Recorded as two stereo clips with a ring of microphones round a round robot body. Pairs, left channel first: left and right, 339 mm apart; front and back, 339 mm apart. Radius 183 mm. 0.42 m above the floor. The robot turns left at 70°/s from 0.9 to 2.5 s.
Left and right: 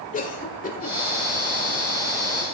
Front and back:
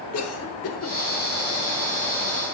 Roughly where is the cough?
Ahead left.